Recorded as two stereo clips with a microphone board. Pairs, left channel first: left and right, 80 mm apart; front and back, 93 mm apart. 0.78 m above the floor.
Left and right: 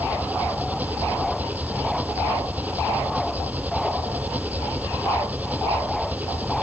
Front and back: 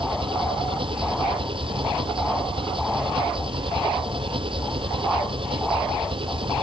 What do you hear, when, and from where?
0.0 s an engine running: 160° right